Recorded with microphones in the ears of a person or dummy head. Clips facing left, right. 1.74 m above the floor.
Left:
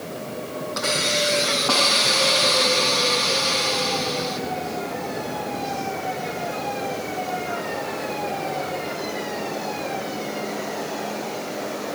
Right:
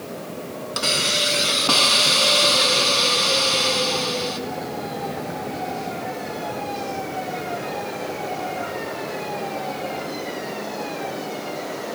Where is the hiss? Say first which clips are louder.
Left 2 dB; 55° right (ahead or behind), 4.5 m.